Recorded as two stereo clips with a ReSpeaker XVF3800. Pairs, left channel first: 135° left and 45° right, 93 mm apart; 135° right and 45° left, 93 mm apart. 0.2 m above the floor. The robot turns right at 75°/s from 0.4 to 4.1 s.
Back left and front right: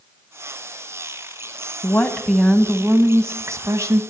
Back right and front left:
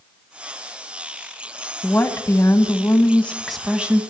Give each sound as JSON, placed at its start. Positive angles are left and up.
{"t": 1.8, "sound": "a woman speaking", "azimuth_deg": -175, "distance_m": 1.2}